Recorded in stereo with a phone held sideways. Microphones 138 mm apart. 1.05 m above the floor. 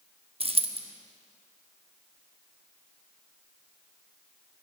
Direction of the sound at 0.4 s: 45° right (ahead or behind).